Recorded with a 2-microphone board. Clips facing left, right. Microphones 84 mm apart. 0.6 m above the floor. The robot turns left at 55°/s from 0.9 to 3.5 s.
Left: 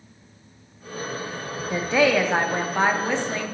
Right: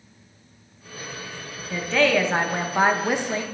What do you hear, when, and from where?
1.7 s a woman speaking: 20° left (ahead or behind), 0.6 m; by 3.4 s 20° right (ahead or behind), 0.6 m